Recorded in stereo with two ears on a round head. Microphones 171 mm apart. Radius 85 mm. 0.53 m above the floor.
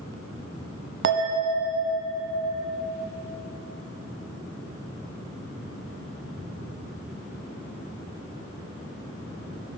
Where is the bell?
65° right (ahead or behind), 0.7 m.